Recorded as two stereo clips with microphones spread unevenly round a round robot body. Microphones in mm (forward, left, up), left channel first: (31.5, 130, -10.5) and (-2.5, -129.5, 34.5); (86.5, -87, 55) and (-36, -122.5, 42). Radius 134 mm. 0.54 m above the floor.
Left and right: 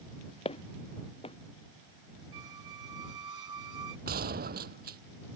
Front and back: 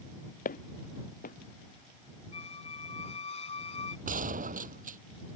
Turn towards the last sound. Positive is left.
turn(degrees=-155)